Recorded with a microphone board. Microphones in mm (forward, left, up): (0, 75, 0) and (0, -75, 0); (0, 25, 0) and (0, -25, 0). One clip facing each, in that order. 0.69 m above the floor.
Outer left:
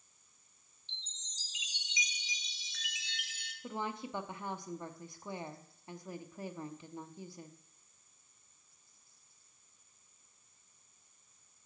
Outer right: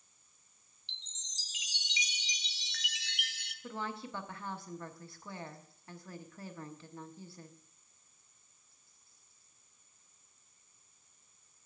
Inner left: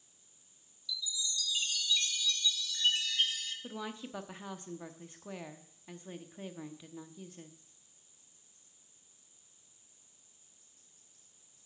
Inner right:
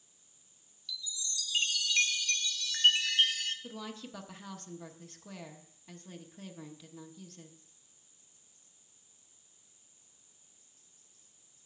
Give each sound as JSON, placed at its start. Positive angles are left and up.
{"t": 0.9, "sound": "a chime", "side_deg": -70, "distance_m": 0.8}
{"t": 3.6, "sound": "a woman speaking", "side_deg": 15, "distance_m": 0.9}